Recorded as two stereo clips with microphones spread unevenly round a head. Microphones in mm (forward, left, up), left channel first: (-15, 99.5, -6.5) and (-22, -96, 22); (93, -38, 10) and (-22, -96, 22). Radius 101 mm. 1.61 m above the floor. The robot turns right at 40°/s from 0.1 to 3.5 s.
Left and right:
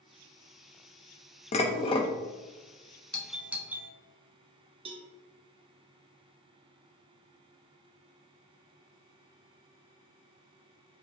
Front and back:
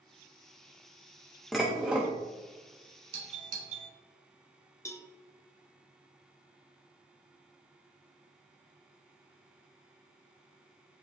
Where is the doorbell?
165° left, 0.9 m; by 3.9 s straight behind, 0.9 m.